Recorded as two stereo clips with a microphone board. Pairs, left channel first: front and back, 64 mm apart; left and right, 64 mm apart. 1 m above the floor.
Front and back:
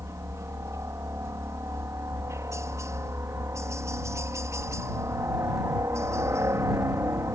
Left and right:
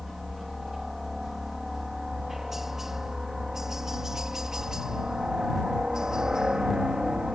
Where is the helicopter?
175° right; by 7.3 s 160° right.